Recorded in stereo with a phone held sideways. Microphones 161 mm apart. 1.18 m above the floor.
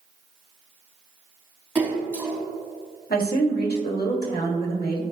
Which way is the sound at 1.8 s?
10° right (ahead or behind).